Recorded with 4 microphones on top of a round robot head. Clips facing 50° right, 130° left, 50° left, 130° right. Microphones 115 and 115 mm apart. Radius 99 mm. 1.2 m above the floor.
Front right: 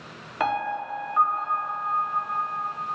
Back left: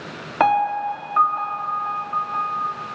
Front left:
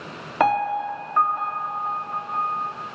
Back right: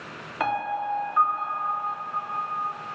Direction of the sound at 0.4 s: 90° left.